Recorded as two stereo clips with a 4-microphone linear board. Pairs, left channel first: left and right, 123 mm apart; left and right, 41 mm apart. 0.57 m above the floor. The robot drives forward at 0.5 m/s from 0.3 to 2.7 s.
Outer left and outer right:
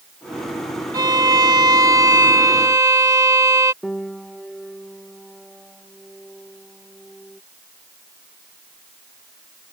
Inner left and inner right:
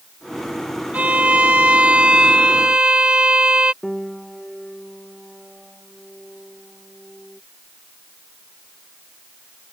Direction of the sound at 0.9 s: 35° right (ahead or behind).